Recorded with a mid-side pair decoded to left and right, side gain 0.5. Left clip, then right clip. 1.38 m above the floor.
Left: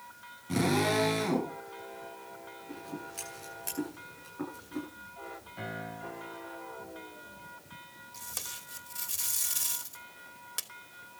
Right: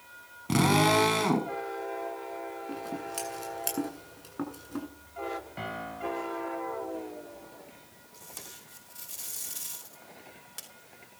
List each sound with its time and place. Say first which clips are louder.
0.5 s a drill: right 5 dB; 60° right, 5 m
2.7 s scissors: right 6 dB; 55° right, 8.5 m
5.6 s a piano: right 4 dB; 45° right, 4.5 m
8.1 s tape being pulled: left 5 dB; 40° left, 2.5 m